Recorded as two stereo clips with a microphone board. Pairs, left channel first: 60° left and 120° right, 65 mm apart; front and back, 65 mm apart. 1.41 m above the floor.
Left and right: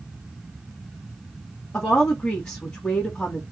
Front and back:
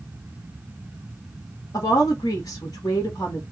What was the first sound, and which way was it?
A woman speaking, straight ahead.